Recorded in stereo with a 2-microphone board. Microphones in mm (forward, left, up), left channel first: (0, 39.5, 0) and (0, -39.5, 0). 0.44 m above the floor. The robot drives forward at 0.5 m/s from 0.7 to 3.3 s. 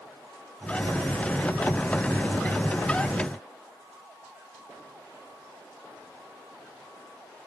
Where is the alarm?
No alarm in this recording.